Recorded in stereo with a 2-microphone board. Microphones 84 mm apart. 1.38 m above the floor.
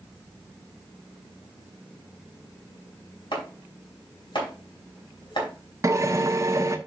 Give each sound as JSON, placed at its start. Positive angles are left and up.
{"t": 3.3, "sound": "chopping", "side_deg": 60, "distance_m": 4.5}
{"t": 5.8, "sound": "a drill", "side_deg": -35, "distance_m": 0.9}